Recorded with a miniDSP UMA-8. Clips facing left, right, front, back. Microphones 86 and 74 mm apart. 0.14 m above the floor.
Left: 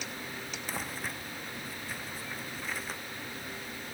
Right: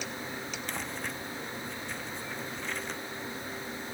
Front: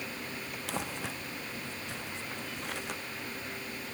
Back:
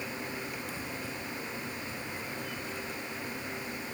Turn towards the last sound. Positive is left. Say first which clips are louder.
# left 1 dB, front 2 dB
turn(degrees=5)